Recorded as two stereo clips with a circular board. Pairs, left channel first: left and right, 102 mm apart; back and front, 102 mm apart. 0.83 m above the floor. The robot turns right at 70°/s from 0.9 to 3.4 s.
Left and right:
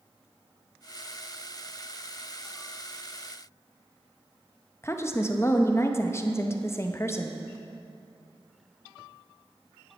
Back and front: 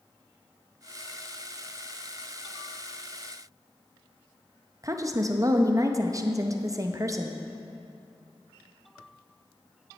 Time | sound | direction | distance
4.8 | a woman speaking | 40° left | 0.6 m